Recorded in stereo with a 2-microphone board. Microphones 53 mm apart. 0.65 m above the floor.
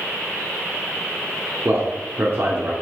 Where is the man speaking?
45° right (ahead or behind), 1.7 m.